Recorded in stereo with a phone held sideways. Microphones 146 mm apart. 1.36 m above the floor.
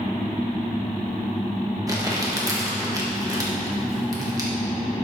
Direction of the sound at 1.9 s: 25° right (ahead or behind).